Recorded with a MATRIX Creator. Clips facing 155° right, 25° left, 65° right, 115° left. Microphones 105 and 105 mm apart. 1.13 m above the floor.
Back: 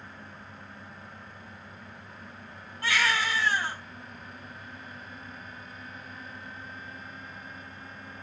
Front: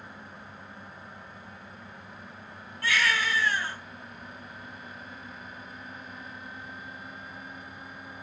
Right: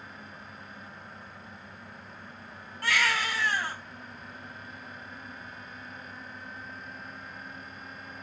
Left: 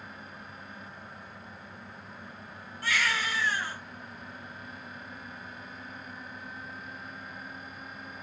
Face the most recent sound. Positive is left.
turn(degrees=-95)